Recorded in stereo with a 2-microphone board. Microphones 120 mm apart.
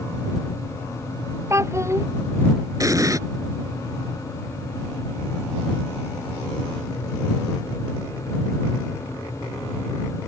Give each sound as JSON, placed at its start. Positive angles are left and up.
{"t": 1.5, "sound": "a child speaking", "side_deg": -25}
{"t": 2.8, "sound": "an explosion", "side_deg": -30}